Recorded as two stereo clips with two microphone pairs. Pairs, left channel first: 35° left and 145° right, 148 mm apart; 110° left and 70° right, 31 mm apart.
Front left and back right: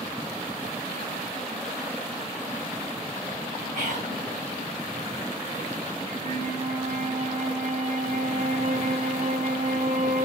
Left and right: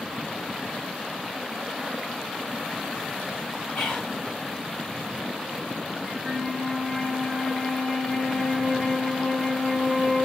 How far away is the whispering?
About 3.5 m.